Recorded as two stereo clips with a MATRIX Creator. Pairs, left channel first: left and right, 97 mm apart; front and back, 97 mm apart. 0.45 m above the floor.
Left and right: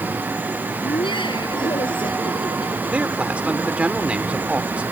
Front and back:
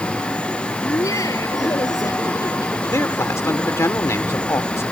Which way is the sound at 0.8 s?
55° left.